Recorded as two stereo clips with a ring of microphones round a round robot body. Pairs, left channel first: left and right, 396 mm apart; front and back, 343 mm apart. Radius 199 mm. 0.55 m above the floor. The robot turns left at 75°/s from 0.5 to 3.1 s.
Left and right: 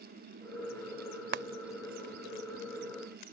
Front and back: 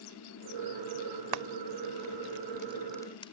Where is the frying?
150° right; by 3.3 s 75° left.